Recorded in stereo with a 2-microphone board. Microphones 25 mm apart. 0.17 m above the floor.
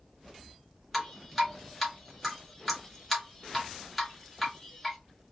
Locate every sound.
0.9 s dripping: 5° left (ahead or behind), 2 m